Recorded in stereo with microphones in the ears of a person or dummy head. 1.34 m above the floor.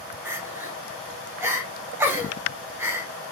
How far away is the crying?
About 0.6 m.